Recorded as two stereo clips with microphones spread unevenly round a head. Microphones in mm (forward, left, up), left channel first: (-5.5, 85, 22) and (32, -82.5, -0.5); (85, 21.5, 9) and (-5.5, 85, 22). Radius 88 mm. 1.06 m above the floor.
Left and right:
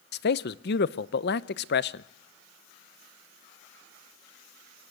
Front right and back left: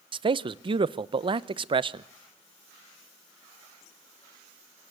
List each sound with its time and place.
0.1 s a man speaking: 110° left, 0.8 m